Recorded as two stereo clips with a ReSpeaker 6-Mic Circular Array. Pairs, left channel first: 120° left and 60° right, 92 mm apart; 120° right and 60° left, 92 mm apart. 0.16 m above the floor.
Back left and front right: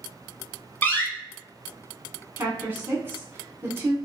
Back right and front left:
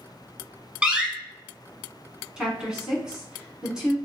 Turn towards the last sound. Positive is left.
turn(degrees=-15)